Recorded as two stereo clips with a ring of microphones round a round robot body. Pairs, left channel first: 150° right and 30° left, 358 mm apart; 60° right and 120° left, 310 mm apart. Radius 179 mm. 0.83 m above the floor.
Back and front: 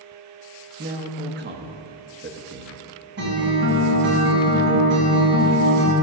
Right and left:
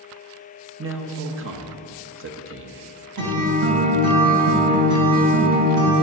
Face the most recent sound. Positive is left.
turn(degrees=90)